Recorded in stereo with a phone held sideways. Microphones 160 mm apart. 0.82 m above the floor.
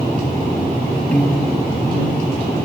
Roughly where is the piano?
Centre.